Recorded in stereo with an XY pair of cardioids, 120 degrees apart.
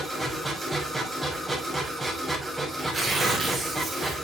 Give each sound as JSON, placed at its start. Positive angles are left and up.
{"t": 0.0, "sound": "a machine running", "azimuth_deg": -5, "distance_m": 5.5}
{"t": 2.8, "sound": "tearing paper", "azimuth_deg": -15, "distance_m": 5.5}